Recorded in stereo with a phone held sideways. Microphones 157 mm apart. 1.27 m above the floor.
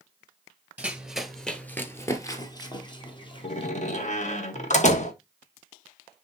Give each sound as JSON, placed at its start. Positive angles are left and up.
{"t": 0.8, "sound": "running footsteps", "side_deg": -10, "distance_m": 1.3}
{"t": 3.4, "sound": "a door slam", "side_deg": 50, "distance_m": 1.3}